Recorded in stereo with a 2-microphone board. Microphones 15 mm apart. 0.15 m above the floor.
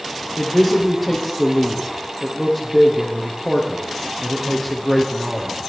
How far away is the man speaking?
About 5.5 m.